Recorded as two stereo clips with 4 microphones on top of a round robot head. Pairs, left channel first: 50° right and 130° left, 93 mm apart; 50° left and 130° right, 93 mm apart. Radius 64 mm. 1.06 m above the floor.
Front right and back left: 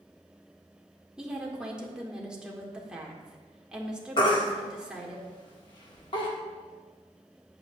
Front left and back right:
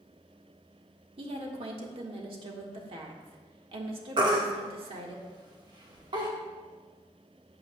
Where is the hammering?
I don't hear hammering.